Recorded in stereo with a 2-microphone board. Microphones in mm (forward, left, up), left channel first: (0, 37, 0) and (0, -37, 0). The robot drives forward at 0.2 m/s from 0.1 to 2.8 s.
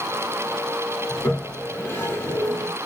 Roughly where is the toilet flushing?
Left.